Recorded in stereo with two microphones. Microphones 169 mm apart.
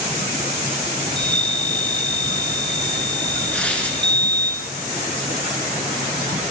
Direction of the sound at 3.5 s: 5° left (ahead or behind).